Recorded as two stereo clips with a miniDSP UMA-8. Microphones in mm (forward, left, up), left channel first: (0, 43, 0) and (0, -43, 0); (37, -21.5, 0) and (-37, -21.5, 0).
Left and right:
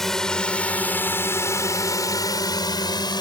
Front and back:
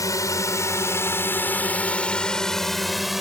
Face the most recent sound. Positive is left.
turn(degrees=95)